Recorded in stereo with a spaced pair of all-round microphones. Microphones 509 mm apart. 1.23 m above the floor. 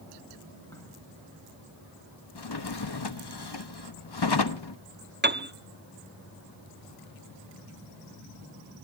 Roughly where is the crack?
Centre.